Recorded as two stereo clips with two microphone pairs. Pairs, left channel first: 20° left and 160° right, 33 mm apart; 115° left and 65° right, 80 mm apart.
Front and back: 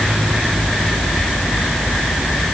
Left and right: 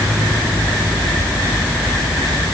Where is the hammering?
No hammering in this recording.